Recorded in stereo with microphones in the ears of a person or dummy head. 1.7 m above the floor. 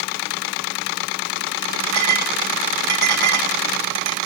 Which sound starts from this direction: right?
A clink, at 1.9 s.